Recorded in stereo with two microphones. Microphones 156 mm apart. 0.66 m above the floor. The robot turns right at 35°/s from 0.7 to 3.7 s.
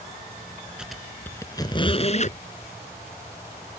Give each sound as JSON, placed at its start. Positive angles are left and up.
{"t": 0.8, "sound": "a squeak", "side_deg": -5}